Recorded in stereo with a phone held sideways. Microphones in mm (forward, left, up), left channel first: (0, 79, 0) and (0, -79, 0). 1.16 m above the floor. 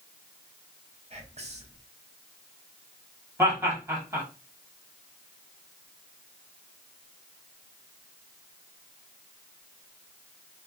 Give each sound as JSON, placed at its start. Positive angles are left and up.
{"t": 1.1, "sound": "whispering", "side_deg": -45, "distance_m": 0.9}
{"t": 3.4, "sound": "laughter", "side_deg": -20, "distance_m": 1.6}